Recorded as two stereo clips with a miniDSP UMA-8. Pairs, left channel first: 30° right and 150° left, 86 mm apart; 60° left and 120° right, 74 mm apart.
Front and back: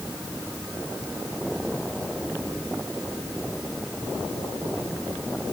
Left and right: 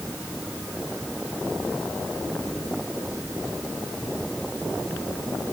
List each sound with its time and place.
Only background noise.